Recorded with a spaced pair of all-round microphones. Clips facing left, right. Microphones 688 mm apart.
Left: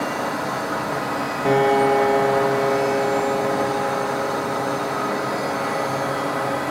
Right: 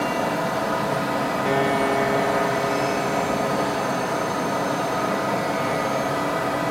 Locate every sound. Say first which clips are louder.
0.0 s a fan: right 1 dB; 60° right (ahead or behind), 1.2 m
1.4 s a piano: left 7 dB; 70° left (ahead or behind), 1.1 m